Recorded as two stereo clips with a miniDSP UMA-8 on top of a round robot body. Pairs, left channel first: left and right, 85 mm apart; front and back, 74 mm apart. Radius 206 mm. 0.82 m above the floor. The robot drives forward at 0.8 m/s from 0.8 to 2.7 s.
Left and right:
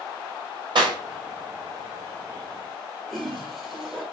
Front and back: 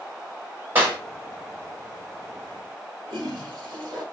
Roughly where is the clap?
Behind right.